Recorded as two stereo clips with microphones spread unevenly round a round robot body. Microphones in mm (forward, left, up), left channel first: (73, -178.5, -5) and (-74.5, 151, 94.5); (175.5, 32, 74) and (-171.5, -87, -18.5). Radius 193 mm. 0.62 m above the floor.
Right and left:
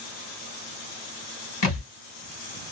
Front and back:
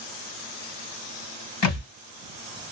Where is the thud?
10° right, 1.6 m.